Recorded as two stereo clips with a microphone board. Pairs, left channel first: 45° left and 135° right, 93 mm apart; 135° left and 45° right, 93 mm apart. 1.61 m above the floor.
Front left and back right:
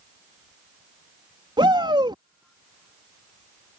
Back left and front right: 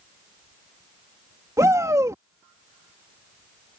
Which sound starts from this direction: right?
A shout, at 1.6 s.